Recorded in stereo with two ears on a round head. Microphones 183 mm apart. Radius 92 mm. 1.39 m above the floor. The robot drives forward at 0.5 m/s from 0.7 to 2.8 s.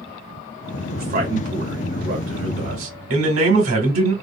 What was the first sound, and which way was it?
A man speaking, 50° right (ahead or behind).